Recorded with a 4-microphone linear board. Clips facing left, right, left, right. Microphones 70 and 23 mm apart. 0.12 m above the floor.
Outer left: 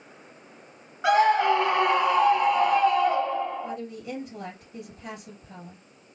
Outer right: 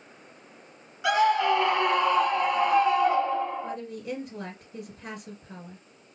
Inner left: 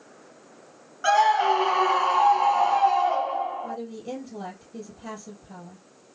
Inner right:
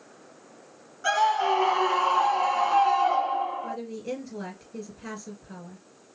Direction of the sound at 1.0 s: 35° left (ahead or behind).